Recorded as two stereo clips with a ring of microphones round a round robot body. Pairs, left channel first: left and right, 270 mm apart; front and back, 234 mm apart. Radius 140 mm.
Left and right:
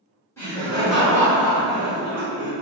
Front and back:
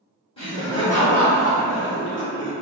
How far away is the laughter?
About 1.3 m.